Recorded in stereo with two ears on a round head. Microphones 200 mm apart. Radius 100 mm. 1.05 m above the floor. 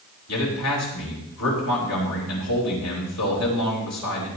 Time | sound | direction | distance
0.3 | a man speaking | 85° left | 4.5 m